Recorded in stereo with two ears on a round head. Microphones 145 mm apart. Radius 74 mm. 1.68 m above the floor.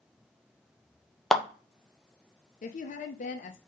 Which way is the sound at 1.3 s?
Centre (ahead or behind).